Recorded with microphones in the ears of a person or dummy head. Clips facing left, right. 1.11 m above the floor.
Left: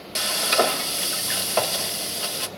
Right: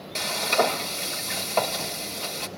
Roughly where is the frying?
Centre.